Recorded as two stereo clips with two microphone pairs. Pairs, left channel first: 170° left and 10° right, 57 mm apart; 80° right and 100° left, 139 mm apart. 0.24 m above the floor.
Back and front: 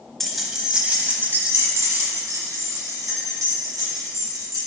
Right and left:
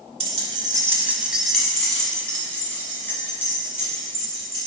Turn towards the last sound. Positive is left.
turn(degrees=-10)